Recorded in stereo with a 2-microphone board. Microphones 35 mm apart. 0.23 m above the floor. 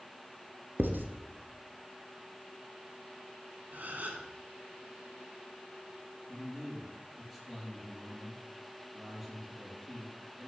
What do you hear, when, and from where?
0.8 s writing: 75° right (ahead or behind), 1.5 m
3.7 s a gasp: 55° right (ahead or behind), 2.5 m
6.3 s a man speaking: 15° right (ahead or behind), 7 m